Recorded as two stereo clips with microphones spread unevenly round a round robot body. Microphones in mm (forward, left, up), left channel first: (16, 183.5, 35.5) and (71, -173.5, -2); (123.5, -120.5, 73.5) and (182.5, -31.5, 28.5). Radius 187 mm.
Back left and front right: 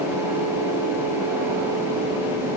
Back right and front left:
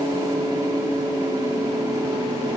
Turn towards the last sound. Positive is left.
No sound to turn to.